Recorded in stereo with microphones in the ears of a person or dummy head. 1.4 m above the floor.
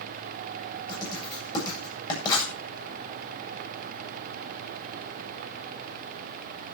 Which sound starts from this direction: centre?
Writing, at 0.9 s.